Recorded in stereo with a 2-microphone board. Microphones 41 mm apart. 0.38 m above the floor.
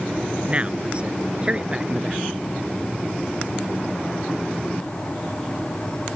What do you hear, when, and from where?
0.5 s a man speaking: 30° right (ahead or behind); by 2.2 s 20° right (ahead or behind)